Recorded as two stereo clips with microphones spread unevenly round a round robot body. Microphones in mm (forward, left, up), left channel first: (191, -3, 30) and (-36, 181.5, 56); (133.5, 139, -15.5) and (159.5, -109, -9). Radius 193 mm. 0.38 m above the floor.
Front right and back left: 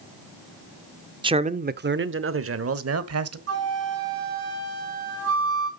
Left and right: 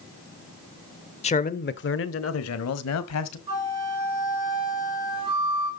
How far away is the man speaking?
About 0.8 m.